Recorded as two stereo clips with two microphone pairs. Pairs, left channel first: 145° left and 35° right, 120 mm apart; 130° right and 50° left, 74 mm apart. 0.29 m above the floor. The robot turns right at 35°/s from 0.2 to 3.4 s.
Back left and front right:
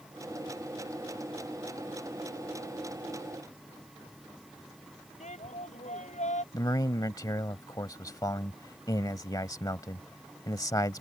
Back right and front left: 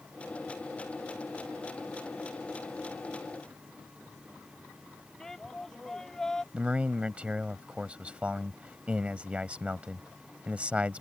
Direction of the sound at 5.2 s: 150° left.